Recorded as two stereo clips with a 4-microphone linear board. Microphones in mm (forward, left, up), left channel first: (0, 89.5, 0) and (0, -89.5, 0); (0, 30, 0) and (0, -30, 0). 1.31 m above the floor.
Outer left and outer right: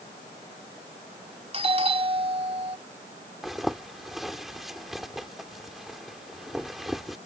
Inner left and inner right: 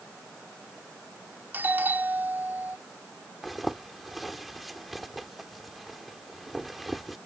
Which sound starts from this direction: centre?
A zipper, at 3.4 s.